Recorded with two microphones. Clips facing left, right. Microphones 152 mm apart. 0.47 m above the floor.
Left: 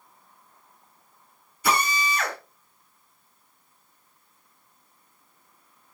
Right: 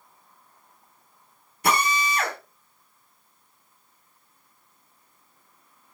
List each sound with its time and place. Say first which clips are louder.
1.6 s a drill: right 1 dB; 65° right (ahead or behind), 3 m